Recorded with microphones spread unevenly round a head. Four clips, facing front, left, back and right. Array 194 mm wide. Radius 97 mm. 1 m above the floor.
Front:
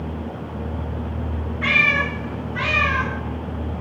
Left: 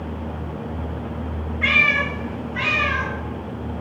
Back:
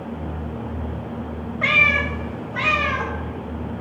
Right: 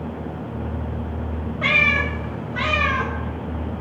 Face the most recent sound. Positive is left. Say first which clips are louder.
# even, even
turn(degrees=-145)